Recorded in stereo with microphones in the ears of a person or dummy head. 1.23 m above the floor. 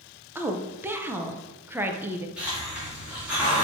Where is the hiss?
5° right (ahead or behind), 1.7 m.